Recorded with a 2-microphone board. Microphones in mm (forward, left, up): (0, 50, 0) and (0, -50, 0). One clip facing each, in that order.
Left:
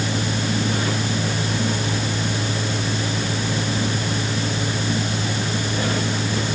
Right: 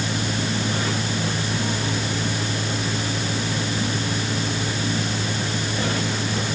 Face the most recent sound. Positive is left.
No sound to turn to.